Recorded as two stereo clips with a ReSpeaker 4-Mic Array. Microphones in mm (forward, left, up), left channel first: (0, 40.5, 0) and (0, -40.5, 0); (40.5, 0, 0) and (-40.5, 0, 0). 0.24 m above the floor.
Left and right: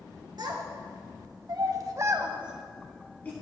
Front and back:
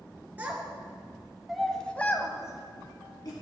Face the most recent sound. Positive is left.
turn(degrees=25)